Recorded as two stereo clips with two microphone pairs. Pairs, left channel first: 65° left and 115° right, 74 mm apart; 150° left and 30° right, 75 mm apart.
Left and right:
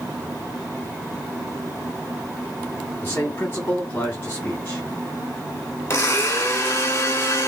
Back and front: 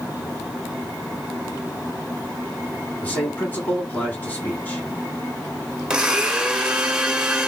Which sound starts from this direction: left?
A man speaking, at 3.0 s.